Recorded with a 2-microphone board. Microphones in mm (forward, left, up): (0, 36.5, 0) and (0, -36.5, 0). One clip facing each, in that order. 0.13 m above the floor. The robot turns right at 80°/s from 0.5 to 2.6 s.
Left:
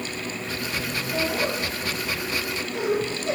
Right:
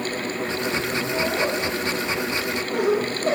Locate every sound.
1.1 s laughter: centre (ahead or behind), 9 m; by 3.3 s 60° right (ahead or behind), 9 m